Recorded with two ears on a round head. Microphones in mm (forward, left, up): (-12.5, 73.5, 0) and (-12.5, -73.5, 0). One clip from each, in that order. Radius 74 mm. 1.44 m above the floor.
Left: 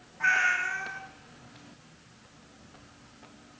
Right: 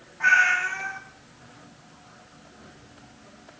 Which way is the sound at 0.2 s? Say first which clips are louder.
Right 6 dB; 5° right (ahead or behind).